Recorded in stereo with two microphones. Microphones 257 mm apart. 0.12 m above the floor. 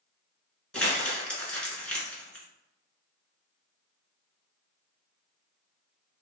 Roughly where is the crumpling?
Centre.